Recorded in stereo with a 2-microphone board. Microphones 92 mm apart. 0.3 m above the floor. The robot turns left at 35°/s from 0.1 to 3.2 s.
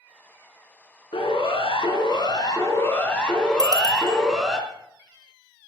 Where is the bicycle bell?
45° right (ahead or behind), 5.5 m.